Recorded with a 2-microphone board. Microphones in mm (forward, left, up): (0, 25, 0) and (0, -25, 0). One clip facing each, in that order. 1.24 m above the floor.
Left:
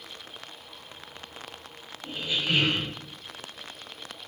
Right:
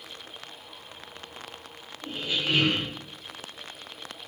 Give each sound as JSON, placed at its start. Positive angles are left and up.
{"t": 2.0, "sound": "a squeak", "side_deg": -40, "distance_m": 1.1}